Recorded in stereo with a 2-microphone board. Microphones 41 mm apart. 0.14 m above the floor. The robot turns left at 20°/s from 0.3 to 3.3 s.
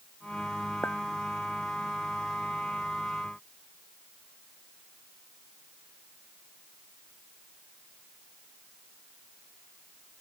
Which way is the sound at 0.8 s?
45° left (ahead or behind).